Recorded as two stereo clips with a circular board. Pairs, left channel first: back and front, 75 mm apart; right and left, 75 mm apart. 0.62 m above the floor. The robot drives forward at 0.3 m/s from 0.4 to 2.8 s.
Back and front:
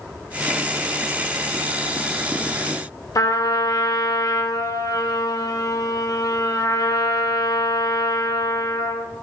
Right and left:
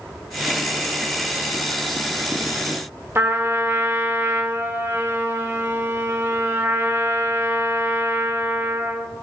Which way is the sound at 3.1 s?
145° left.